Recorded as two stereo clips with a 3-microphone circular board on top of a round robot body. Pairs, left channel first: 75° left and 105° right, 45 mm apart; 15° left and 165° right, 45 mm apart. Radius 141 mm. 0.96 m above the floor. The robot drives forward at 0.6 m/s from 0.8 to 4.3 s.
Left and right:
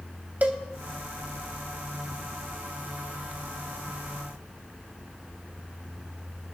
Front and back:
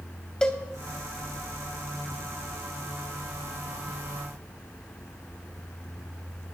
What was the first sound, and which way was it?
A cowbell, 55° right.